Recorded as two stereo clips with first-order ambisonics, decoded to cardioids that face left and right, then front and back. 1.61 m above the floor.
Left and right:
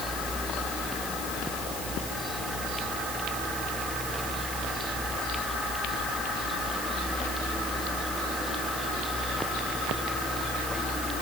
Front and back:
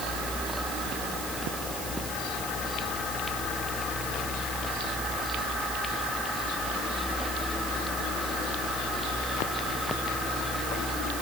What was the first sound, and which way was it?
Only background noise.